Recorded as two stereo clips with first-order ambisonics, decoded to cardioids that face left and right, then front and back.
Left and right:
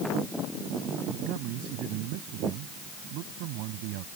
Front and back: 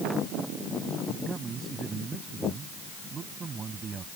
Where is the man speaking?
110° right.